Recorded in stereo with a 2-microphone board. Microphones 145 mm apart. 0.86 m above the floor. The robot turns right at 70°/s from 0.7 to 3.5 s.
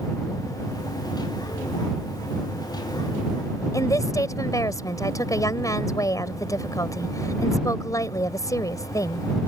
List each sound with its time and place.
3.7 s a woman speaking: 20° left (ahead or behind)